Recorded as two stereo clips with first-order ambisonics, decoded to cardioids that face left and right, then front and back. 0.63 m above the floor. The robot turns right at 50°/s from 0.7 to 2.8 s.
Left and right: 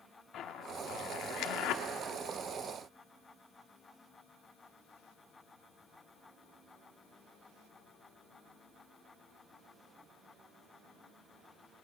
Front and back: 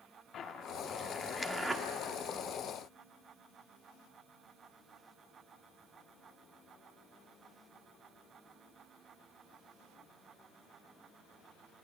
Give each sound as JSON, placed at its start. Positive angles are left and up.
{"t": 0.3, "sound": "a zipper", "azimuth_deg": 45, "distance_m": 1.3}